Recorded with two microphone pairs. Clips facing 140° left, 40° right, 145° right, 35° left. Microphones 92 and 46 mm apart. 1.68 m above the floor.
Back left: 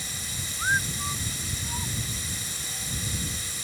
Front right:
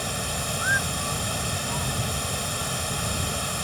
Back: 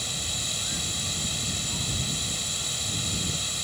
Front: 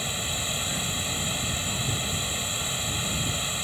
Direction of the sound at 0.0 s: 30° right.